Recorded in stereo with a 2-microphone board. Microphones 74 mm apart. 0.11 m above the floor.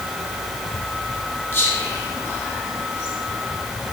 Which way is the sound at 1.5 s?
25° left (ahead or behind).